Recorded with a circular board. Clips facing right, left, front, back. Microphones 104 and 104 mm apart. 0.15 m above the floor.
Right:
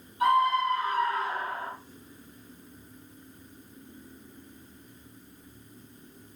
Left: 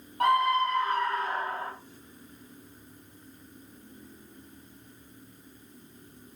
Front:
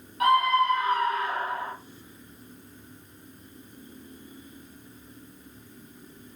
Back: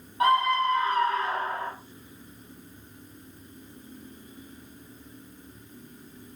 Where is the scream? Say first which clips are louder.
Right 1 dB, front 1 dB; 120° left, 4.5 m; by 1.7 s 135° left, 4.5 m.